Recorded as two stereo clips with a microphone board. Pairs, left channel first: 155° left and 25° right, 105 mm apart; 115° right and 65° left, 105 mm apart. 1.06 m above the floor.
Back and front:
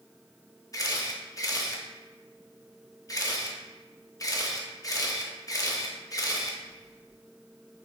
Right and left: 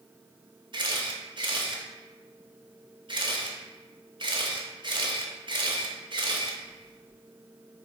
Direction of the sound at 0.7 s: 105° left.